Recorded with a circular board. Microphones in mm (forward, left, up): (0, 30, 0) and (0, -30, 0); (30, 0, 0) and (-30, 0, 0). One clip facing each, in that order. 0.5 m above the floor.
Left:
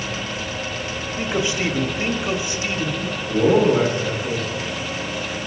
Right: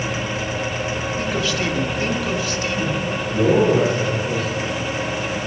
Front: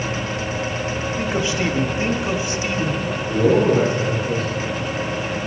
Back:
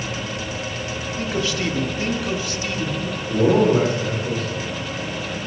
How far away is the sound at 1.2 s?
About 1.1 m.